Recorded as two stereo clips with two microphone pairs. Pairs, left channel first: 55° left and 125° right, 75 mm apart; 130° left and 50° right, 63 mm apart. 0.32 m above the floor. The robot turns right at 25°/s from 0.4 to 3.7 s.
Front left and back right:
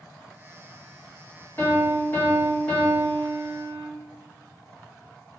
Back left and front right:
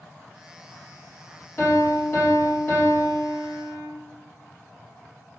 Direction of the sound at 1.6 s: 95° left.